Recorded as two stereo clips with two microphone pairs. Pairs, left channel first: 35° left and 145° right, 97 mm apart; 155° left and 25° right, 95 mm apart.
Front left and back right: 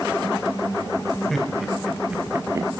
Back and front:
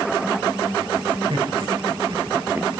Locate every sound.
1.3 s laughter: 55° right, 2 m; by 2.8 s 110° right, 1.1 m